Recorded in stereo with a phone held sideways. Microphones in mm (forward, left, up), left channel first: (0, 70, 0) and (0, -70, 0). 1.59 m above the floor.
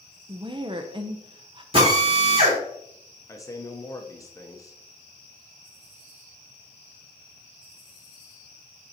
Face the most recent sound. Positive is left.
turn(degrees=20)  # may be behind; listen again after turning